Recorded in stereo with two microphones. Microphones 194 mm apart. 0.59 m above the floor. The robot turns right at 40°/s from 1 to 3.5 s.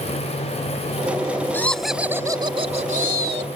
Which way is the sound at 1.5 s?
170° left.